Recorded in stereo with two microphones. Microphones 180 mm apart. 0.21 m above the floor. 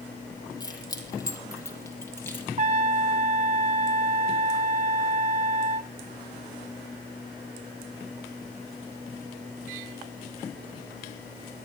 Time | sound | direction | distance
0.6 | keys jangling | 20° left (ahead or behind) | 5 m
2.6 | a trumpet | 40° right (ahead or behind) | 0.8 m